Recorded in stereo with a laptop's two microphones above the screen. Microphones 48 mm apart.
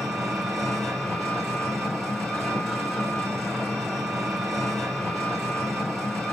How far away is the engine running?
About 3 m.